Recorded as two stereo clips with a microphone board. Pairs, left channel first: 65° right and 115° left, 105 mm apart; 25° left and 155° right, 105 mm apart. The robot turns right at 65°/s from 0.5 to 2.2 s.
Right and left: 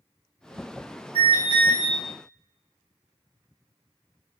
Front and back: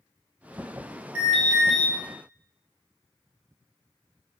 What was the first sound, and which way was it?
An alarm, 90° right.